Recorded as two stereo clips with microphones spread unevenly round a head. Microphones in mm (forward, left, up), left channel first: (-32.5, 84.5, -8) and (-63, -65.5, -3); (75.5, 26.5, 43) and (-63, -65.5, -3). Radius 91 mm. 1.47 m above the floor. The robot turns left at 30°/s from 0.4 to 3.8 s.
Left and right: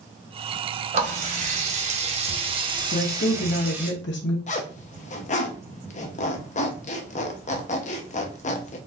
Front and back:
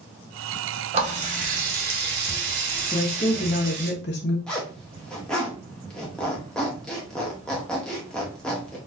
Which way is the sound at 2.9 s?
100° left.